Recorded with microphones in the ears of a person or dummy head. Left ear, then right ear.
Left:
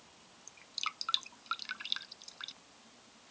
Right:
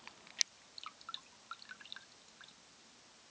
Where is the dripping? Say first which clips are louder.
Left 12 dB; 70° left (ahead or behind).